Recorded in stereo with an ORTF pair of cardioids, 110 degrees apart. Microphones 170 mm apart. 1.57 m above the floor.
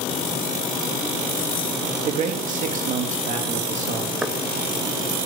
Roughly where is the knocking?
Ahead.